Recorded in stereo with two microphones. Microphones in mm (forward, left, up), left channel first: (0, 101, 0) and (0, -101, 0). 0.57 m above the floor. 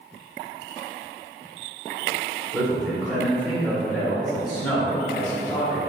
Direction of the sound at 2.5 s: 5° left (ahead or behind).